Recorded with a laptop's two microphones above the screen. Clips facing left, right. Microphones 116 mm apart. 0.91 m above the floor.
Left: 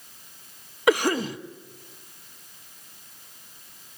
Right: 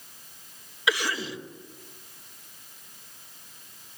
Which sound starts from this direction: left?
A cough, at 0.9 s.